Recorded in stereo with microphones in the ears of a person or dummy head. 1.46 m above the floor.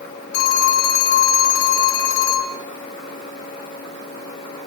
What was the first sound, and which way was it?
A phone ringing, 65° left (ahead or behind).